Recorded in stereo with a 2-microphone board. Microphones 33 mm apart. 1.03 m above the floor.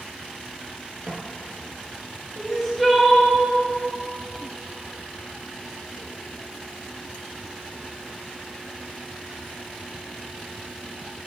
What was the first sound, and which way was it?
Footsteps, 30° right (ahead or behind).